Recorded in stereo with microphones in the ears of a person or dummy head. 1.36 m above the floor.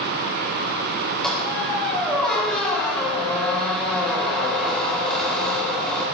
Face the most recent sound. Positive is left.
turn(degrees=10)  # may be behind; listen again after turning